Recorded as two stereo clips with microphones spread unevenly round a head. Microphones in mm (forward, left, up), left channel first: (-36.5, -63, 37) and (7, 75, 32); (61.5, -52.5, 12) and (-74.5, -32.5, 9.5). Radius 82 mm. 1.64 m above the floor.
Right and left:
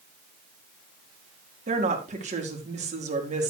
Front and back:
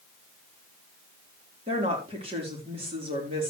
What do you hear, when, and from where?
1.7 s a woman speaking: 110° left, 4 m